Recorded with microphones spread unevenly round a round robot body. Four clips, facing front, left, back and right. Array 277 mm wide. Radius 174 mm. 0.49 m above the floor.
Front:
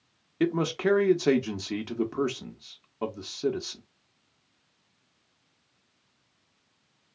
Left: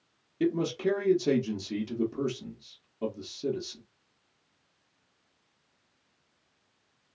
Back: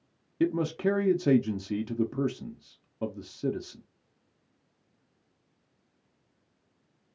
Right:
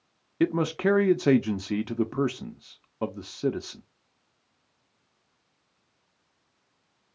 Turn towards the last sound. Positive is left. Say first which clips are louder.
# right 3 dB, front 1 dB
turn(degrees=-75)